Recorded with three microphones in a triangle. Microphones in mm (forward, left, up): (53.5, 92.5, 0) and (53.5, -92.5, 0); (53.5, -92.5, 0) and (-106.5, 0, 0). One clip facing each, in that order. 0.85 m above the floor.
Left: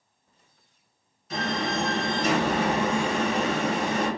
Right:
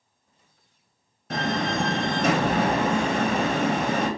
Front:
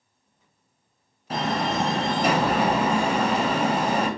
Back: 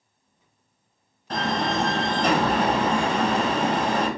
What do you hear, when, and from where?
1.3 s a door slam: 115° right, 0.6 m